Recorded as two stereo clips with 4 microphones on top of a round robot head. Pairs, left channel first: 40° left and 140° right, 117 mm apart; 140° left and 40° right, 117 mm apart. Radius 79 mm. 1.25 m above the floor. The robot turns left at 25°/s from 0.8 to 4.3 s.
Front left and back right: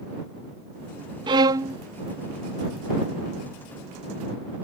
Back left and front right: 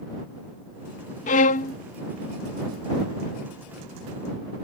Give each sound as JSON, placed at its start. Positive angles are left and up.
{"t": 1.3, "sound": "a violin", "azimuth_deg": 165}